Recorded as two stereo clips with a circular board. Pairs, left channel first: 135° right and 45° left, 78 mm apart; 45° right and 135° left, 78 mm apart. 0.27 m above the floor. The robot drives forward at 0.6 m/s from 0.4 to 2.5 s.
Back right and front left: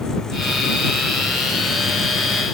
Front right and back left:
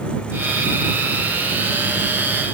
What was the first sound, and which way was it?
Only background noise.